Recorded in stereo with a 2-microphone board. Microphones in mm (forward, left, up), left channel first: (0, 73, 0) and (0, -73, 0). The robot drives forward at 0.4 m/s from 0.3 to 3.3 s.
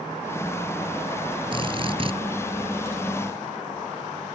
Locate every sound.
1.5 s a drill: 40° right (ahead or behind)